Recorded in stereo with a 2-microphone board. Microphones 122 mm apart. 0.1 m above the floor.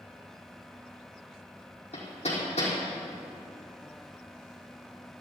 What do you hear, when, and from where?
1.9 s hammering: 60° left (ahead or behind), 4.5 m